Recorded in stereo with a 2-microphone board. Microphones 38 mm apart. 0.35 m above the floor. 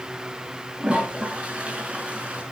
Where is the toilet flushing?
30° right (ahead or behind), 4.5 m.